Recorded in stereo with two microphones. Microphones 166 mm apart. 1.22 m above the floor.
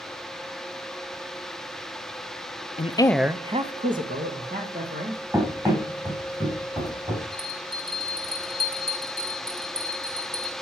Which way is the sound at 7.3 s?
30° right (ahead or behind).